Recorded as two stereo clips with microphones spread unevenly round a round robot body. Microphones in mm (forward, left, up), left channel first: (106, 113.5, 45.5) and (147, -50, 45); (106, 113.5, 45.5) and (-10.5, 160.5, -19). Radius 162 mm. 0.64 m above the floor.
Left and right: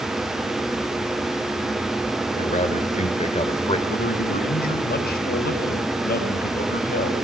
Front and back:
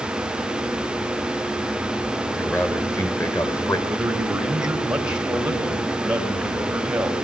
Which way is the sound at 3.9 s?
80° left.